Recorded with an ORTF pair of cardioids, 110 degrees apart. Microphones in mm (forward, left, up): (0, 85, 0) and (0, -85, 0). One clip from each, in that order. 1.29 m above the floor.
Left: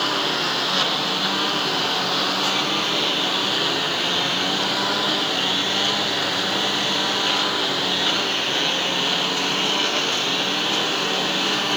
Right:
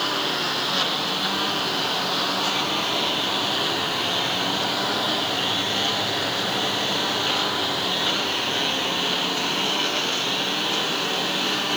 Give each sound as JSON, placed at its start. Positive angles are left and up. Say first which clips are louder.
{"t": 0.0, "sound": "a lawn mower", "louder": "left 2 dB", "azimuth_deg": 45}